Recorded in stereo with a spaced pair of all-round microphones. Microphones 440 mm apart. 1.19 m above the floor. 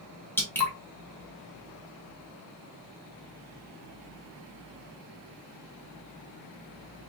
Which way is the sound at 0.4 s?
5° left (ahead or behind).